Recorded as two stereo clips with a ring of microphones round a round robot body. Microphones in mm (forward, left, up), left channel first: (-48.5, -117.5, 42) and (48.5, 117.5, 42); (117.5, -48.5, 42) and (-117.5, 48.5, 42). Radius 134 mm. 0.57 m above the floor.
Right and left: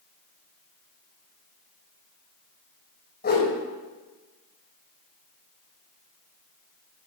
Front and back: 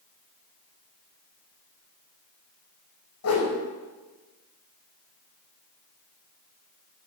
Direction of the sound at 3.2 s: 60° right.